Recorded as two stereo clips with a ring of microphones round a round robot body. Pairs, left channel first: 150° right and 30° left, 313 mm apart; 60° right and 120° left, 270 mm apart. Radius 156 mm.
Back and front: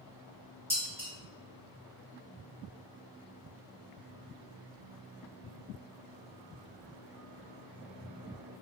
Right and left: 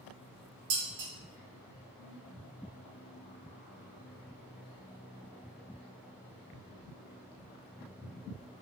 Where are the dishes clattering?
115° left, 1.6 m.